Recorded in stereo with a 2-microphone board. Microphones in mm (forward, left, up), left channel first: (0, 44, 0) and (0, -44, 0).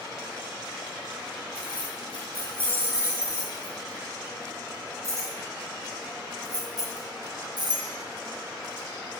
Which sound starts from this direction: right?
Keys jangling, at 1.6 s.